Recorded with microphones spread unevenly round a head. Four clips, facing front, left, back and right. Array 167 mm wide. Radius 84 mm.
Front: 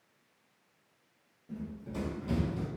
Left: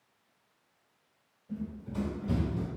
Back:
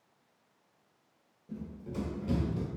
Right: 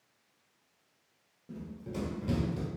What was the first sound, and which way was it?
Running footsteps, 75° right.